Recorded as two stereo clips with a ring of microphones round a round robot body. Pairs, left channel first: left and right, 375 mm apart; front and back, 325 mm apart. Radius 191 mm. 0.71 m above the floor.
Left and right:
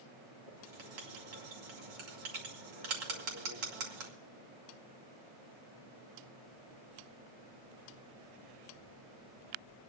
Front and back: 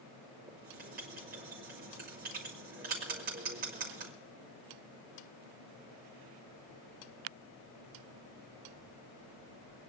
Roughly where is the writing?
Right.